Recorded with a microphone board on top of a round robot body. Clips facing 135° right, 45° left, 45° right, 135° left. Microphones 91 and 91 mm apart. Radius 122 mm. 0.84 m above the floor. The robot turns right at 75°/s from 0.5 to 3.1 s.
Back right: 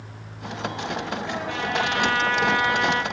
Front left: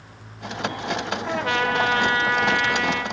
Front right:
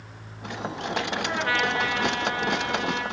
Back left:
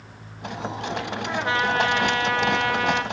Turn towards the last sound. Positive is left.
turn(degrees=-175)